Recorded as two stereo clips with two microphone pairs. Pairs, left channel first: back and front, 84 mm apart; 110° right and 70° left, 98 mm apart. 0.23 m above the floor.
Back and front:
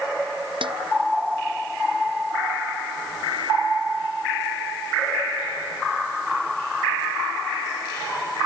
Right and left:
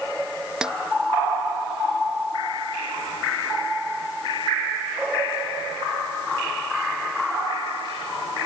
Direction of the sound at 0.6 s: 10° right.